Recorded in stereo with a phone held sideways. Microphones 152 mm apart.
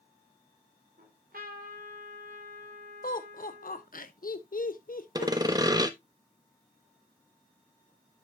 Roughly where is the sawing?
Right.